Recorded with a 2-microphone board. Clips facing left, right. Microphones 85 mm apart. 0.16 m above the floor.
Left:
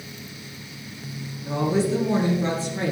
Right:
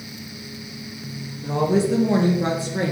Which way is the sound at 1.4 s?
65° right (ahead or behind).